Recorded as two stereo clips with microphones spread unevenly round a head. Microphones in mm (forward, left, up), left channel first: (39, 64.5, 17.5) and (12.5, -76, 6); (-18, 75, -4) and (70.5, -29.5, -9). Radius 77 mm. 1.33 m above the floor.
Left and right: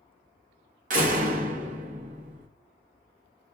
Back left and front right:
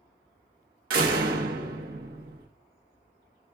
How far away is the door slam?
About 1.0 m.